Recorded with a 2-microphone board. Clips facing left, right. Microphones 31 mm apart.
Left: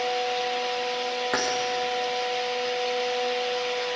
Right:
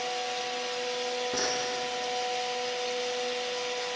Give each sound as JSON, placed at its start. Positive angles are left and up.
{"t": 1.3, "sound": "keys jangling", "side_deg": 80, "distance_m": 7.0}